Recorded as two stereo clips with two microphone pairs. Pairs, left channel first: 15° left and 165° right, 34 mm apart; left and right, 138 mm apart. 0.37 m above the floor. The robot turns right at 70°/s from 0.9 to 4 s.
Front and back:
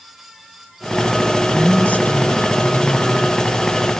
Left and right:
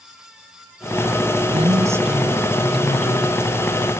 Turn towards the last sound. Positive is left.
turn(degrees=125)